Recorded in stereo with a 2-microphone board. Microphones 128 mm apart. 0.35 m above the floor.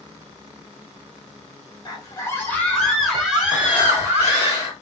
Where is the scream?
30° left (ahead or behind), 1.3 m; by 4.5 s 25° right (ahead or behind), 2 m.